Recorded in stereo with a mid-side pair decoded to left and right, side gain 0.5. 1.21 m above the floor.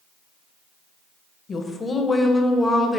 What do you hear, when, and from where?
1.5 s a woman speaking: 40° left, 1.0 m; by 3.0 s straight ahead, 1.3 m